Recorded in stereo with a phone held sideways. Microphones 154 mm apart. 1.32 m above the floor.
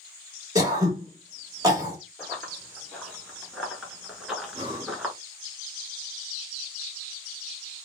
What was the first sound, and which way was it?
Throat clearing, 25° right (ahead or behind).